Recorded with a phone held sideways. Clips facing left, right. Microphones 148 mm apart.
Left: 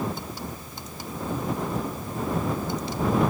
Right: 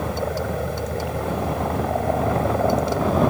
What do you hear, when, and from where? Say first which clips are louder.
0.0 s a helicopter: right 7 dB; 75° right (ahead or behind)